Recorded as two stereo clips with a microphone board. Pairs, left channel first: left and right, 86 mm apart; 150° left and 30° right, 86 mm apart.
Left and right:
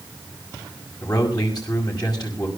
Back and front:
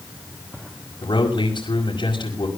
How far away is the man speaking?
About 5.5 m.